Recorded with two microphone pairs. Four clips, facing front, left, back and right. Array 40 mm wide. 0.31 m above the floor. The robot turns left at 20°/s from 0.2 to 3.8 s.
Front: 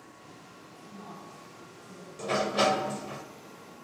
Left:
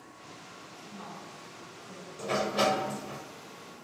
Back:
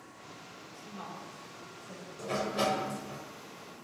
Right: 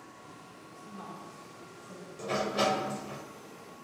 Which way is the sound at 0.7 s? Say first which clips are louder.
Right 1 dB, back 2 dB; 170° right.